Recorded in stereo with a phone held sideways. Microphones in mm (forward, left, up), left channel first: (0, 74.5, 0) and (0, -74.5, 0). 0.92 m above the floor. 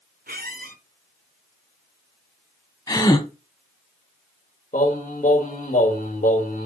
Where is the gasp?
25° left (ahead or behind), 1.1 m.